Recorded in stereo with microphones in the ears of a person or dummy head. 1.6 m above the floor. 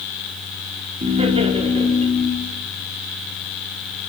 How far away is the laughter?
About 4.5 m.